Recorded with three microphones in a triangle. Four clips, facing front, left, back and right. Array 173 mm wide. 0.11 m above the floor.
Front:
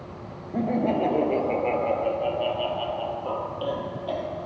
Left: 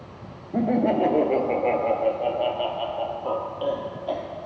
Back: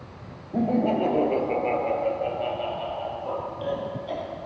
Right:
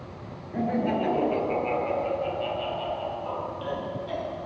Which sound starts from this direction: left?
Laughter, at 0.5 s.